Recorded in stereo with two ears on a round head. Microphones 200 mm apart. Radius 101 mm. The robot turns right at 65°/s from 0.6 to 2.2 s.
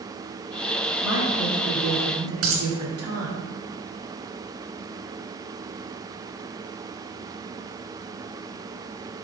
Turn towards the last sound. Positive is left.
turn(degrees=-70)  # may be behind; listen again after turning